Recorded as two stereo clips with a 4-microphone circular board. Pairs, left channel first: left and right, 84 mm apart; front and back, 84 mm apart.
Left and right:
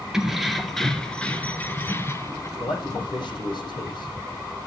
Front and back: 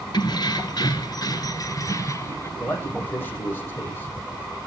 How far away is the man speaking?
About 7 m.